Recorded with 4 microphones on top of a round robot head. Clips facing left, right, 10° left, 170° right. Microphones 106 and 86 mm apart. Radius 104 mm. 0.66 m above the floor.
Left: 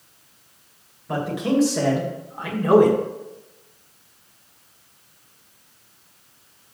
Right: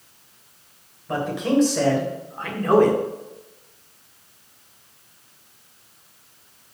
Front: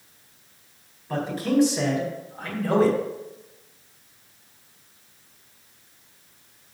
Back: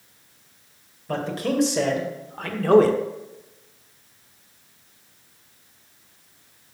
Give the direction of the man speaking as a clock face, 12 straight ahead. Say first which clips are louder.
Right 1 dB, front 1 dB; 6 o'clock.